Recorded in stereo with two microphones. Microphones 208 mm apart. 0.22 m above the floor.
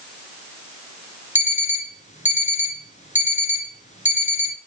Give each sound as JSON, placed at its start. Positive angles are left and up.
{"t": 1.4, "sound": "an alarm clock", "side_deg": 35, "distance_m": 1.8}